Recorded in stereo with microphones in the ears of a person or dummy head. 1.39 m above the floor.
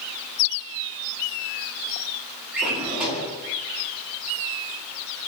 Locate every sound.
2.5 s a drawer: centre (ahead or behind), 1.4 m